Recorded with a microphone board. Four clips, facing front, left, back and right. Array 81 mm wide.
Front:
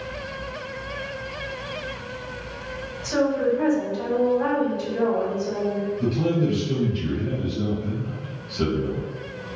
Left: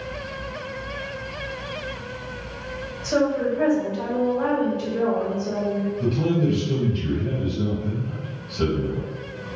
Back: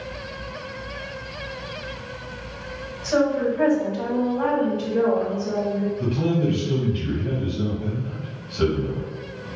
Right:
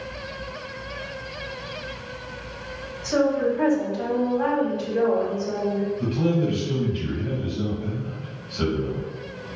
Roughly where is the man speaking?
Behind right.